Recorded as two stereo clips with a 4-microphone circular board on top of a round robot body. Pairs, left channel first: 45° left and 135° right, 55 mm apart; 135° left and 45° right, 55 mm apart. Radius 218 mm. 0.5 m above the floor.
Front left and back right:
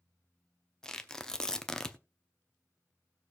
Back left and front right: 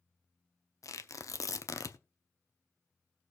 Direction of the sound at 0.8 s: 125° left.